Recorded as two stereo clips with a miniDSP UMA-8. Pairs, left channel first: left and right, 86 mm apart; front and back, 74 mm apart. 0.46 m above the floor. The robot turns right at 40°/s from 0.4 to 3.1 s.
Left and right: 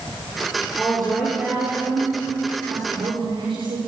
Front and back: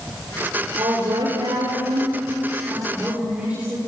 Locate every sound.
0.8 s a woman speaking: 155° left, 8 m; by 3.8 s 110° right, 8 m